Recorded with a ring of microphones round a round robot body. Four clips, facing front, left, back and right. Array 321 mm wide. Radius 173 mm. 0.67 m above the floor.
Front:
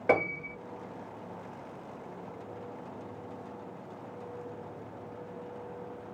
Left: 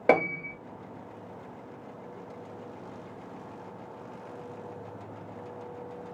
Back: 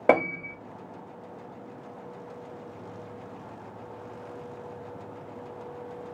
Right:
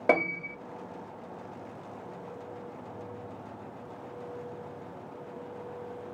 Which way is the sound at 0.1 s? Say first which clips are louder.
Left 3 dB, back 5 dB; 170° left.